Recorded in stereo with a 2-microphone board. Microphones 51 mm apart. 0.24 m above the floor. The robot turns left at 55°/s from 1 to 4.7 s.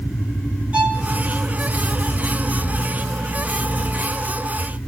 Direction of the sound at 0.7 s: 20° right (ahead or behind).